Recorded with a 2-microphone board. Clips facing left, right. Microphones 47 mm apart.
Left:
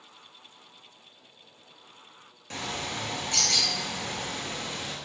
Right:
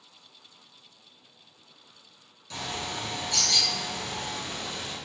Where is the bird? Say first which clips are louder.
Even; 40° left (ahead or behind), 1.2 m.